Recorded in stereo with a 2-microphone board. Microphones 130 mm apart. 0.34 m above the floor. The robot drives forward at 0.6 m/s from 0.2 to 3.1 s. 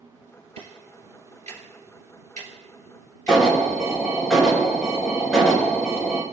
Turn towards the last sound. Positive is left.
turn(degrees=0)  # may be behind; listen again after turning